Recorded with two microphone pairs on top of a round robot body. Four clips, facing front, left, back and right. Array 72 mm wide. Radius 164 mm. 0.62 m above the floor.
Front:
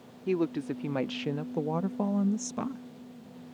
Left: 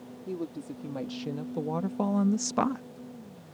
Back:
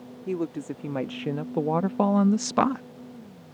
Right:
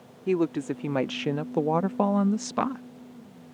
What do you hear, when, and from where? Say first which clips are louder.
0.3 s a woman speaking: right 11 dB, front 1 dB; 80° right; by 2.8 s straight behind